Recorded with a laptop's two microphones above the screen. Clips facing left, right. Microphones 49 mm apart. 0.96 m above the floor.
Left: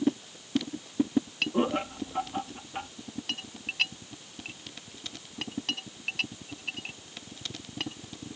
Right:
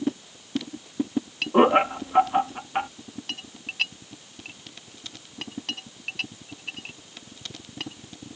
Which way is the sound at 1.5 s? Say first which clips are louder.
Right 12 dB; 65° right (ahead or behind).